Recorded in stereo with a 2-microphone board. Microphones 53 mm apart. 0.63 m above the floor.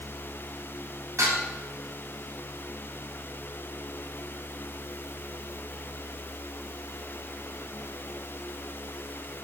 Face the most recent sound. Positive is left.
turn(degrees=-85)